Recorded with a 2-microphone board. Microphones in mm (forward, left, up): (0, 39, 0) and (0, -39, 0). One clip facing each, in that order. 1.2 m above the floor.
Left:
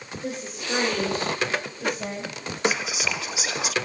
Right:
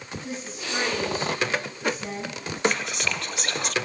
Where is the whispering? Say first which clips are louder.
Even; 5° left (ahead or behind), 0.5 m.